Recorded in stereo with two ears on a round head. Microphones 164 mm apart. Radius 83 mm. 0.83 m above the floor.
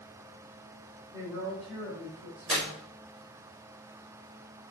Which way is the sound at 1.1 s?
20° right (ahead or behind).